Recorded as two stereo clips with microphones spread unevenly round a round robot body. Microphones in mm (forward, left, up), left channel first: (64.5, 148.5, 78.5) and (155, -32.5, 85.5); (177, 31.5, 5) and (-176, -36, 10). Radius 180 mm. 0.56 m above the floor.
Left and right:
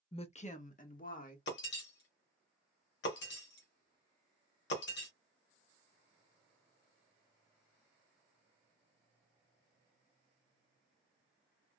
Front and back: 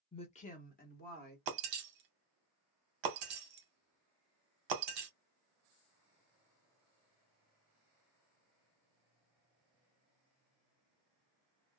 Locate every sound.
0.1 s a woman speaking: 75° left, 0.7 m
1.5 s breaking glass: 155° left, 0.7 m